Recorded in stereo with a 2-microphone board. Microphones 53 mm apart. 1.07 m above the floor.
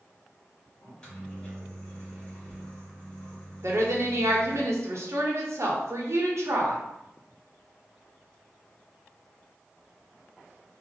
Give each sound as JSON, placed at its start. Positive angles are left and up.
{"t": 0.8, "sound": "a microwave", "side_deg": 25, "distance_m": 0.9}
{"t": 3.6, "sound": "a woman speaking", "side_deg": -65, "distance_m": 0.6}